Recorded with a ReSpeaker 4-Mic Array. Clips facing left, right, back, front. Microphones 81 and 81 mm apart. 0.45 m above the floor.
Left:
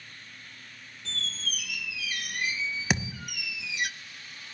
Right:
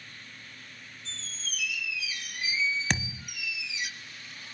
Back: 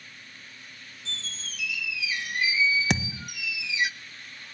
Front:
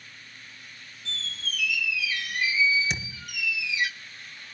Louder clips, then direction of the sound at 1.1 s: Left 7 dB, front 4 dB; 115° left.